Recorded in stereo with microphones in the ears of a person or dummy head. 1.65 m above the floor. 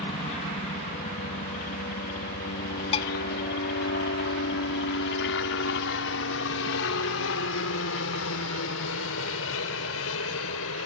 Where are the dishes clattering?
30° left (ahead or behind).